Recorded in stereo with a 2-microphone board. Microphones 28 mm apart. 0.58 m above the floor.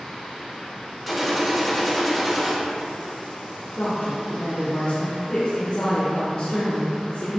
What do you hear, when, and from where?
1.1 s a gunshot: 5° left (ahead or behind), 1.2 m
3.8 s a woman speaking: 60° left (ahead or behind), 2 m